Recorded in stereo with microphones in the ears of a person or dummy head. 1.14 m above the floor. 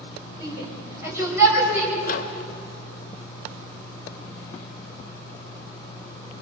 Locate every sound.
0.4 s a shout: 20° right (ahead or behind), 4 m; by 1.9 s 10° right (ahead or behind), 5.5 m
2.0 s a microwave: 45° left (ahead or behind), 0.9 m